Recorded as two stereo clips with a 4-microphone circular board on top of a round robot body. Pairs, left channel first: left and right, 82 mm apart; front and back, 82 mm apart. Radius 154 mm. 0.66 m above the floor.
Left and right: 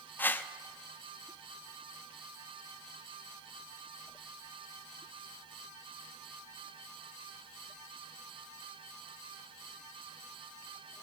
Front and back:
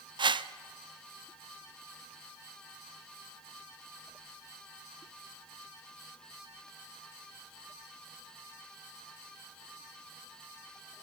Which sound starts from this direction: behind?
A whoosh, at 0.2 s.